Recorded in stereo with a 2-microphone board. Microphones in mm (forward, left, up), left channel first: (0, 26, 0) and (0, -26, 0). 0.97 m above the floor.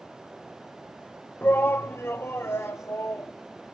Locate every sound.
1.4 s a shout: 40° left (ahead or behind), 0.5 m; by 3.3 s 55° left (ahead or behind), 1.5 m